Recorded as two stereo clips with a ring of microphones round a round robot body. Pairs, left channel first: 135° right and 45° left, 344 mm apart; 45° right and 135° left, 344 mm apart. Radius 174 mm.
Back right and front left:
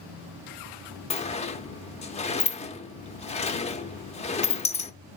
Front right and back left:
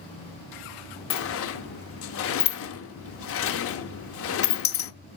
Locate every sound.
1.1 s a sliding door: 70° right, 0.7 m